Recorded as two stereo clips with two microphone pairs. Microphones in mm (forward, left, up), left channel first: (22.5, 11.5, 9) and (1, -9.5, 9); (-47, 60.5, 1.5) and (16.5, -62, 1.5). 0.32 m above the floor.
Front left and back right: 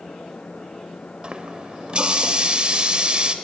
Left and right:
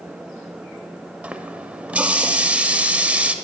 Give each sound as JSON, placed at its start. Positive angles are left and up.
{"t": 1.2, "sound": "a running tap", "azimuth_deg": -135, "distance_m": 0.7}